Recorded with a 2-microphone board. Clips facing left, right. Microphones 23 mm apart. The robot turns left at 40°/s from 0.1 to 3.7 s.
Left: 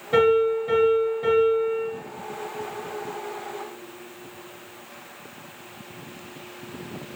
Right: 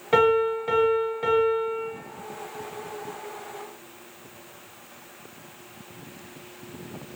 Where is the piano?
75° right, 0.8 m; by 1.9 s 145° right, 0.8 m.